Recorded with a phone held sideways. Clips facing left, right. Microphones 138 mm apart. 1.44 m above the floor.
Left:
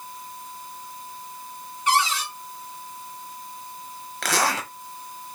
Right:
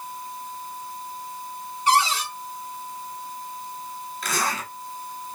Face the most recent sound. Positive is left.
turn(degrees=90)